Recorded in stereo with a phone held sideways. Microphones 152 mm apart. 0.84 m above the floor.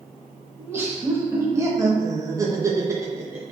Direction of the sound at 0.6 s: 15° right (ahead or behind).